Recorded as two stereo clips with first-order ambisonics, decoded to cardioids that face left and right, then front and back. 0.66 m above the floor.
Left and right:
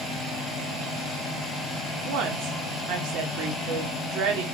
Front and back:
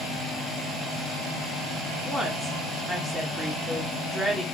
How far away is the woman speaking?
About 1.3 m.